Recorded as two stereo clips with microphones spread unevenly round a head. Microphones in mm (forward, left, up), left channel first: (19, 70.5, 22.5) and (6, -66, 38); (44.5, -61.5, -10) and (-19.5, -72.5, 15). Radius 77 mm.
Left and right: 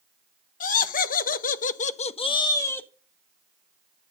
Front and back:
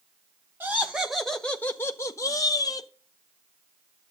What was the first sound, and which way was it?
Laughter, 105° left.